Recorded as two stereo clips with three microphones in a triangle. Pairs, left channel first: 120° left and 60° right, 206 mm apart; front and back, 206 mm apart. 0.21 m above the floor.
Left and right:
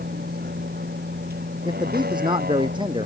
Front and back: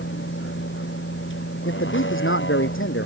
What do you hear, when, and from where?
0.0 s a vehicle: 20° right
1.6 s a man speaking: 5° left